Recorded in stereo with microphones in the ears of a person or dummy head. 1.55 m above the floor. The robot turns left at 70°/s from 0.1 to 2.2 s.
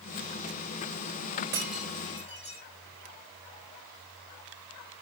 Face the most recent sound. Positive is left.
turn(degrees=30)  # may be behind; listen again after turning